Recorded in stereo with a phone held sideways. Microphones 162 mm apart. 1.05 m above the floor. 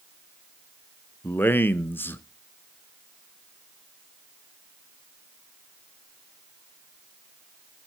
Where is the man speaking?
10° left (ahead or behind), 0.7 m.